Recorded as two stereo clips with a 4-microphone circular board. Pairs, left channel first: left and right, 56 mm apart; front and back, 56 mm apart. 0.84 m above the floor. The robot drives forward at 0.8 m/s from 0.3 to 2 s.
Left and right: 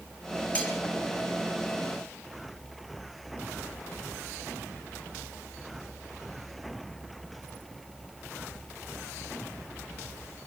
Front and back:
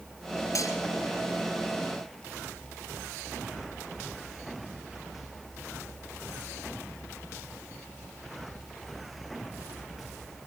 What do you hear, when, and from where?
0.6 s cutlery clinking: 25° left, 9.5 m